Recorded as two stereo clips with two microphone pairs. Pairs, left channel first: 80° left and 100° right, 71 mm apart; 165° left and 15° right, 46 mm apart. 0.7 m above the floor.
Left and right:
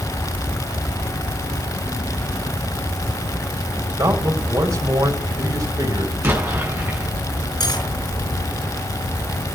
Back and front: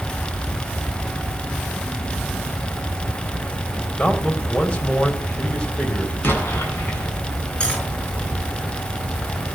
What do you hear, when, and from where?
4.0 s a man speaking: 135° right, 4 m
6.2 s an explosion: 160° right, 7.5 m
7.6 s cutlery clinking: 95° left, 5.5 m